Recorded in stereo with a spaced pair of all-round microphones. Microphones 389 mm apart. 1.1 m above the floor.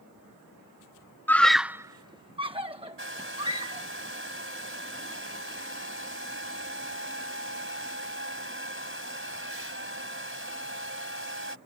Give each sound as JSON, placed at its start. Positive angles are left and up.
{"t": 1.3, "sound": "a scream", "side_deg": 5}
{"t": 3.0, "sound": "a hair dryer", "side_deg": -30}